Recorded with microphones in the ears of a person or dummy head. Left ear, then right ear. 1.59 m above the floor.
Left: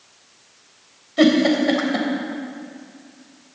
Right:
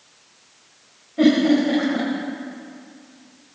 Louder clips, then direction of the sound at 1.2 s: Left 1 dB; 75° left (ahead or behind).